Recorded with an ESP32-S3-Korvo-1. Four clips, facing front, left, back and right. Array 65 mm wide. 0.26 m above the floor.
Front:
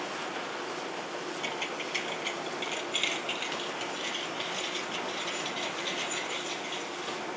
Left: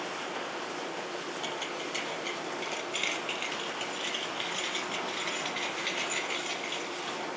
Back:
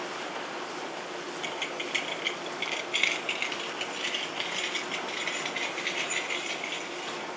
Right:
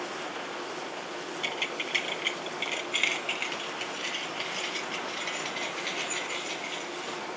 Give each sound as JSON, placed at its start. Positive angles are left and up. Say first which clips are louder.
{"t": 1.4, "sound": "keys jangling", "louder": "right 2 dB, even", "azimuth_deg": -100, "distance_m": 1.2}